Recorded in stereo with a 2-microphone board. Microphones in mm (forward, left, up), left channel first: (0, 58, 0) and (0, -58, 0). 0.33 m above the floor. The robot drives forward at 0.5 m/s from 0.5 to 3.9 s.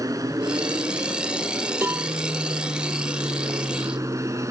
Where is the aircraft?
30° right (ahead or behind); by 4.5 s 25° right (ahead or behind).